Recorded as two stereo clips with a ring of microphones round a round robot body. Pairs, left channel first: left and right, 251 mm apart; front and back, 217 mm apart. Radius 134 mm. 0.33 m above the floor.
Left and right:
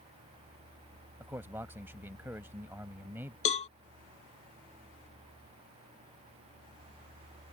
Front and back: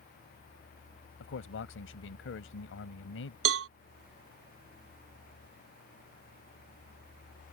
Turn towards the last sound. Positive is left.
turn(degrees=155)